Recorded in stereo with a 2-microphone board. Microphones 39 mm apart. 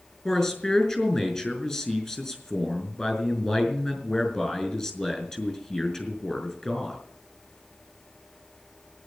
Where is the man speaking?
20° left (ahead or behind), 5.5 m.